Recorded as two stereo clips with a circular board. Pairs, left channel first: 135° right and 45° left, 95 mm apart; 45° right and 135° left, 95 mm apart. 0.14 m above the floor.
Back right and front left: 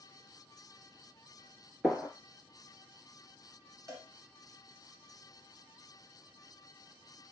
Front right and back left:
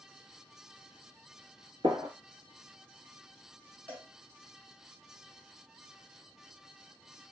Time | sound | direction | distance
1.8 | a gunshot | 130° left | 0.9 m
3.9 | a cowbell | 15° left | 1.2 m